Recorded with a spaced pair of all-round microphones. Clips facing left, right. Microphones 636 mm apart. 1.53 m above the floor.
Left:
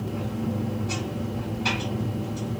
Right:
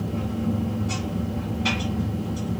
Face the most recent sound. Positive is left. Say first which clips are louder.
# right 2 dB
turn(degrees=-40)  # may be behind; listen again after turning